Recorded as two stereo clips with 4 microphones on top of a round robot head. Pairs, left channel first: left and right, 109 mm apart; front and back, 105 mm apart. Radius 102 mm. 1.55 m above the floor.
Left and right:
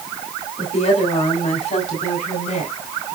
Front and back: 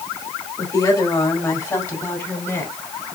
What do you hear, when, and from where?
0.6 s a woman speaking: 55° left, 4 m; by 2.7 s 65° left, 5 m